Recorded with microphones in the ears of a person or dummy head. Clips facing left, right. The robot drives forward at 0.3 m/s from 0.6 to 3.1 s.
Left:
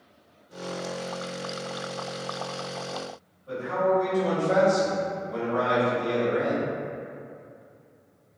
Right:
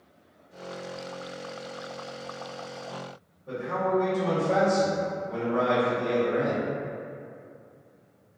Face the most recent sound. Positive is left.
turn(degrees=-25)  # may be behind; listen again after turning